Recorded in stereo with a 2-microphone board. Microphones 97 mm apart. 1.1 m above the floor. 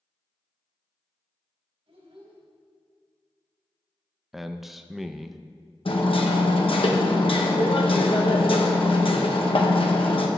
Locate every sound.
1.9 s a child speaking: 80° right, 4.5 m
4.3 s a man speaking: centre (ahead or behind), 0.5 m
5.8 s hammering: 65° left (ahead or behind), 1.1 m